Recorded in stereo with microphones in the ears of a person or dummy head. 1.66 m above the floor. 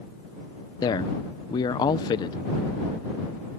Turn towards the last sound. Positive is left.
turn(degrees=25)  # may be behind; listen again after turning